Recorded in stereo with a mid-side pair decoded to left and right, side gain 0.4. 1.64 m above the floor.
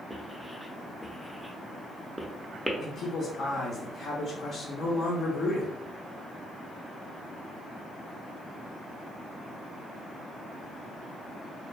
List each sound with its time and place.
0.1 s writing: 10° right, 0.6 m
2.8 s a man speaking: 55° left, 0.7 m